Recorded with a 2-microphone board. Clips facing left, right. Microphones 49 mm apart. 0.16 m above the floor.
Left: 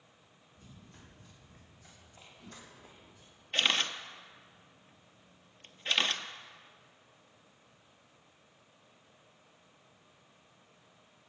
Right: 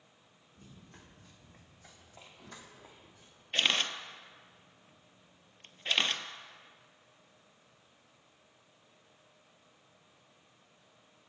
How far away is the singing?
No singing in this recording.